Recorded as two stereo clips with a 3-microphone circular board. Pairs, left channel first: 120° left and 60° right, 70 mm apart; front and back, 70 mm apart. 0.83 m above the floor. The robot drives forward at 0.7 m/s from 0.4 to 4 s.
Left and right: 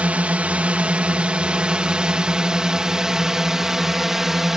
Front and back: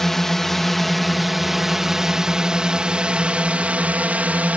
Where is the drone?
75° right; by 4.6 s 140° right.